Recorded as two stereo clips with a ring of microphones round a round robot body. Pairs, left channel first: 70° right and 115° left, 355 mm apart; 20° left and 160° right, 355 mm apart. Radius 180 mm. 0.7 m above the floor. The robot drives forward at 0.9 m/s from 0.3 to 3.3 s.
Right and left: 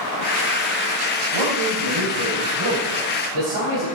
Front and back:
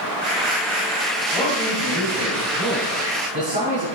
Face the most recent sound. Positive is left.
turn(degrees=135)